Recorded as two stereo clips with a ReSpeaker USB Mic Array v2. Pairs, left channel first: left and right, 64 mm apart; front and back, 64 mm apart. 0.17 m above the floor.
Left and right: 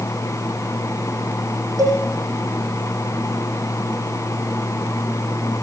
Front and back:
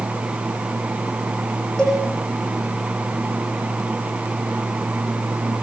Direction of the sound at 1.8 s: 75° right.